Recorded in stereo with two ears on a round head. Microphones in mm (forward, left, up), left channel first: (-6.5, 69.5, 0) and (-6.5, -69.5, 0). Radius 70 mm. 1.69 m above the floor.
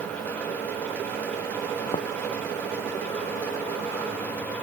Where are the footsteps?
35° left (ahead or behind).